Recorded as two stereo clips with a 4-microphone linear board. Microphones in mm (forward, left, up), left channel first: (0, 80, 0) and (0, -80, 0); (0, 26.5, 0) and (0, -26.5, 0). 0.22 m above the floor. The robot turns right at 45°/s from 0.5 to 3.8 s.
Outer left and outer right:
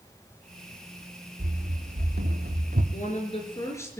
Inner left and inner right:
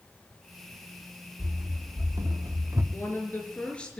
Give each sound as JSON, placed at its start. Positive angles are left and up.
{"t": 1.4, "sound": "running footsteps", "side_deg": -75, "distance_m": 3.0}
{"t": 2.9, "sound": "a woman speaking", "azimuth_deg": 125, "distance_m": 4.5}